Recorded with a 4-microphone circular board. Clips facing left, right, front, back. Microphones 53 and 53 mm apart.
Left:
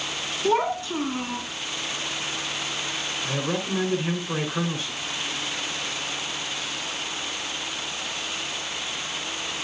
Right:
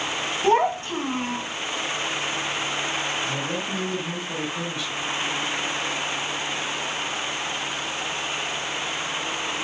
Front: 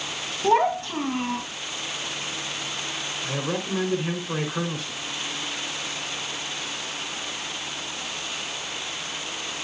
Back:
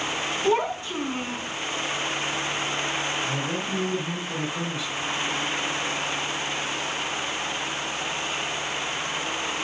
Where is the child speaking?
45° right, 3.5 m; by 1.4 s 30° right, 4 m.